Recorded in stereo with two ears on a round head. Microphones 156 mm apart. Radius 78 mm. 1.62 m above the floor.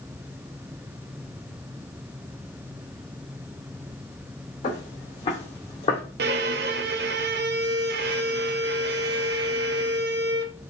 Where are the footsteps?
40° left (ahead or behind), 3.5 m.